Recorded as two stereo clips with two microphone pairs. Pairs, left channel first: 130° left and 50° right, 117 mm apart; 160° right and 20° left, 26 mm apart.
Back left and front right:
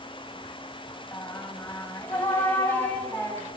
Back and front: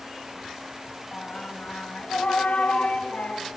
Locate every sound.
1.1 s singing: 160° right, 5 m